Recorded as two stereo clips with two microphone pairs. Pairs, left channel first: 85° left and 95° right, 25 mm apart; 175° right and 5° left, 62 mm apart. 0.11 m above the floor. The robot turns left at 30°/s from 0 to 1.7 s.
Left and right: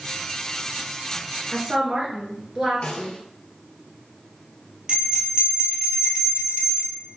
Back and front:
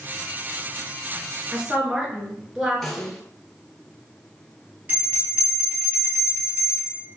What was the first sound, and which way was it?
A woman speaking, 60° right.